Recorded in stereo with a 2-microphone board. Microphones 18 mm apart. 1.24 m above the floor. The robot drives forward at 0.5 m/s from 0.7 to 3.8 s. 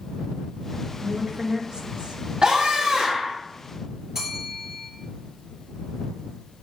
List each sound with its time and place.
1.0 s a woman speaking: 50° right (ahead or behind), 1.5 m; by 2.2 s 70° right (ahead or behind), 1.1 m
2.4 s a scream: 70° right (ahead or behind), 1.5 m; by 3.4 s 85° right, 1.5 m
4.2 s a bell: 30° right (ahead or behind), 3.5 m